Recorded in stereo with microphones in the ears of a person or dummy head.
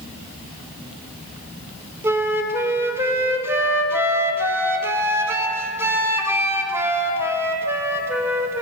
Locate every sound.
2.0 s a flute: 10° right (ahead or behind), 0.6 m